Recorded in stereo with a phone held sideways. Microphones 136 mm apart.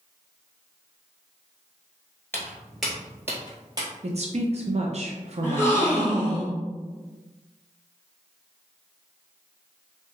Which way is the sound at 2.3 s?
15° left (ahead or behind).